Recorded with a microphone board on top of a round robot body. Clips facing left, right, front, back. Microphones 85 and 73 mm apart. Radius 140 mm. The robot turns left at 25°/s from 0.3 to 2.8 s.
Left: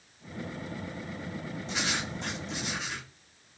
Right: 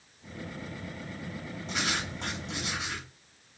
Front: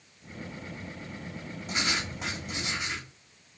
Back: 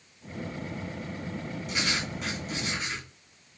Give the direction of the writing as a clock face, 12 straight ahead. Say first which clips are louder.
Right 1 dB, front 1 dB; 2 o'clock.